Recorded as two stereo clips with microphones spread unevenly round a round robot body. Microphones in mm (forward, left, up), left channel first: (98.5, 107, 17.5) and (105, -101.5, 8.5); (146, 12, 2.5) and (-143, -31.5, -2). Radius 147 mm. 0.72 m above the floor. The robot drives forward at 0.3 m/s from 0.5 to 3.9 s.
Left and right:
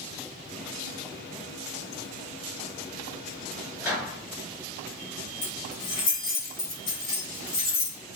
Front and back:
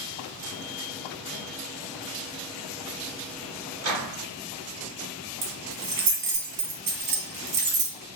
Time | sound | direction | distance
3.8 | a microwave | 150° left | 1.3 m
5.4 | keys jangling | 155° left | 1.6 m